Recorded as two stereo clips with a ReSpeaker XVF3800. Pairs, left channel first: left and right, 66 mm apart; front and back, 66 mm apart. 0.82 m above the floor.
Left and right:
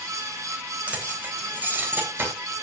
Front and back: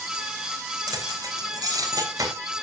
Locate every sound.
0.9 s keys jangling: 160° right, 3 m; by 2.3 s 145° right, 3 m